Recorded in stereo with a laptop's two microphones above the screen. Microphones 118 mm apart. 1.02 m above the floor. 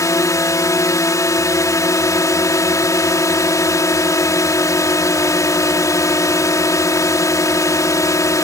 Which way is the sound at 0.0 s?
25° left (ahead or behind).